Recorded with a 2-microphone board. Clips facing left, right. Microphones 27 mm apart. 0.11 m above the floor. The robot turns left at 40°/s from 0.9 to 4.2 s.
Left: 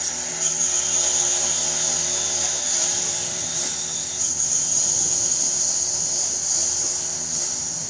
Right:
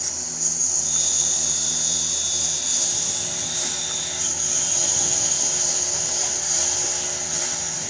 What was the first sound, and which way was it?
A lawn mower, 65° left (ahead or behind).